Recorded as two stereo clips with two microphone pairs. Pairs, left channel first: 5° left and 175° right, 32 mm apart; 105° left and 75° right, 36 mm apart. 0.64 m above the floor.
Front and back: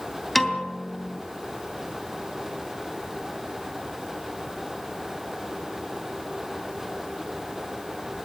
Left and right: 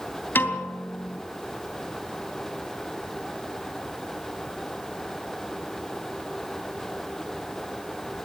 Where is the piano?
95° left, 3 m.